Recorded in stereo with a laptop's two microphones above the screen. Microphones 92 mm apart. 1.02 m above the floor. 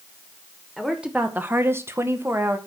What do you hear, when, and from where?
0.8 s a woman speaking: 5° right (ahead or behind), 1.1 m; by 2.6 s 25° right (ahead or behind), 1.4 m